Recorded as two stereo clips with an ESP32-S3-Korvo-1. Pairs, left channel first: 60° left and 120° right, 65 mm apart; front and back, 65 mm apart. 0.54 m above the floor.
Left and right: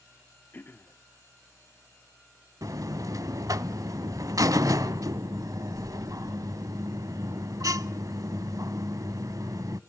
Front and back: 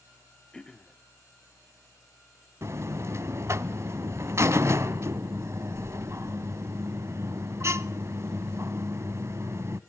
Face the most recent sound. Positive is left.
turn(degrees=-140)